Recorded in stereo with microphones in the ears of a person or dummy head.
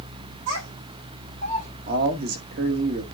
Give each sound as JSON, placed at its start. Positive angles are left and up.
{"t": 0.5, "sound": "a child speaking", "side_deg": -70, "distance_m": 5.5}
{"t": 1.9, "sound": "a man speaking", "side_deg": -55, "distance_m": 1.8}